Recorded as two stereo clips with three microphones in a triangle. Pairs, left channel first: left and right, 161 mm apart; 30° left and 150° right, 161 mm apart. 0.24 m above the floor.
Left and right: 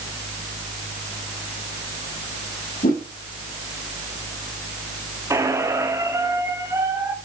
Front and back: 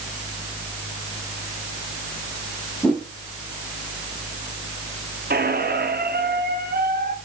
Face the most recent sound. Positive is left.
turn(degrees=-165)